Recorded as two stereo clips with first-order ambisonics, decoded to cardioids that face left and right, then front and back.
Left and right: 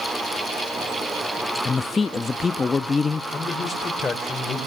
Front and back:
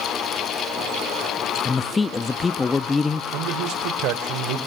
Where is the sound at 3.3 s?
160° left, 2.5 m.